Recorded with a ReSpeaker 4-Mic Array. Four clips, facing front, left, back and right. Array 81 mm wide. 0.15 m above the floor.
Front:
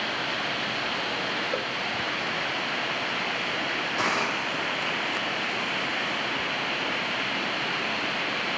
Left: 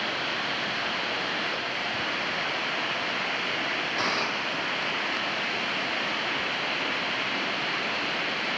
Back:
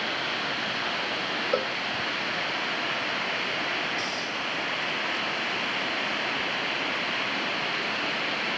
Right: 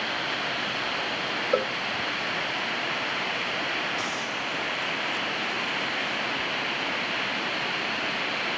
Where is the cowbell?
110° right.